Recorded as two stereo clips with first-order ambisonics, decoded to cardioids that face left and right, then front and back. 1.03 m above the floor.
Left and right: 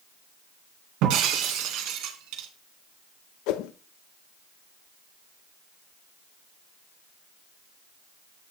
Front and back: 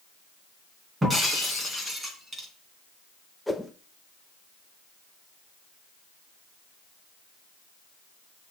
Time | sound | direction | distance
1.0 | breaking glass | 100° right | 2.5 m
3.5 | a whoosh | 90° left | 0.8 m